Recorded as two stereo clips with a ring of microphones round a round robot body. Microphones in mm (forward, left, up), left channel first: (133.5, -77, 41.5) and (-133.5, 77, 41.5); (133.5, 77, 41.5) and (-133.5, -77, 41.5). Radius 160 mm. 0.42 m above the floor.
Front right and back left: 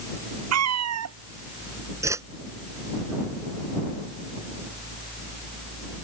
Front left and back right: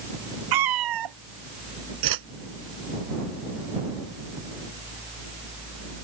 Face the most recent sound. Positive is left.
turn(degrees=-130)